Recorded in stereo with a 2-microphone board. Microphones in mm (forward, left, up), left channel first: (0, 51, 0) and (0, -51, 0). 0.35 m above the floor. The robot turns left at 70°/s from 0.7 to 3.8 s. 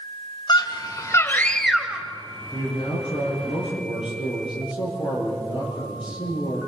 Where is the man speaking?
155° left, 7 m; by 6.7 s 65° left, 7 m.